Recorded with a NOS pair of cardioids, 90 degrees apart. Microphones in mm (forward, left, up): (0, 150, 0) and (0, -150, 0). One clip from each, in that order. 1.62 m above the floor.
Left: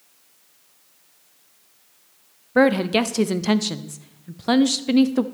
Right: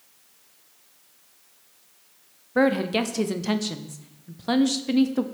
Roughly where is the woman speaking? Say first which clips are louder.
Left 4 dB; ahead.